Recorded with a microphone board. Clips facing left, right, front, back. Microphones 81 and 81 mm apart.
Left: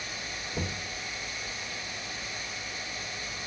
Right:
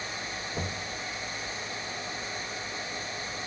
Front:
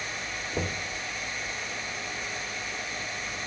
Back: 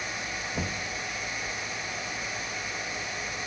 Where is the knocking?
5° right, 5 m.